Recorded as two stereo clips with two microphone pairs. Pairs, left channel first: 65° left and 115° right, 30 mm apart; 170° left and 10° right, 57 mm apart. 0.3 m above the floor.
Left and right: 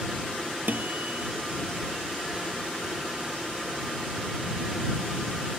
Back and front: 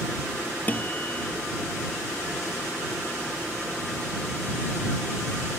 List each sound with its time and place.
0.7 s a guitar: 130° right